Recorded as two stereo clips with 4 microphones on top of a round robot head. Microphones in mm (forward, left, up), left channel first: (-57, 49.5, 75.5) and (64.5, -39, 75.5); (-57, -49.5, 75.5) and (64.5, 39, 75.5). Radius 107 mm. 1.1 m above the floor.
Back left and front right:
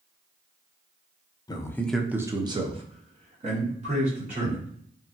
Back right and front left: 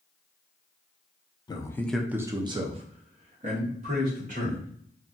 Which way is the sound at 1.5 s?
Straight behind.